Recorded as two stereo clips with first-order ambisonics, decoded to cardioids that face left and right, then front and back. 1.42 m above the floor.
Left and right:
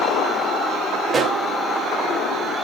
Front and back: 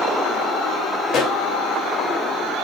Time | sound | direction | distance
1.1 | a pop | 25° right | 1.5 m